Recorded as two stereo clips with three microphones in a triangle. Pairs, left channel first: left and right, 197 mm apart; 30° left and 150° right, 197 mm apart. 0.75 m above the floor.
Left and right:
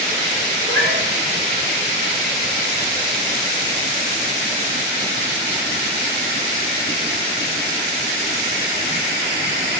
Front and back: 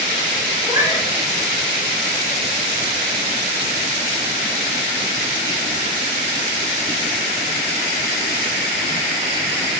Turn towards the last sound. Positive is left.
turn(degrees=-75)